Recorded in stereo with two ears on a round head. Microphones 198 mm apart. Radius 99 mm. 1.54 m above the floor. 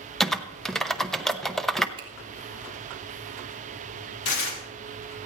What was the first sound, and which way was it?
Typing on a keyboard, centre (ahead or behind).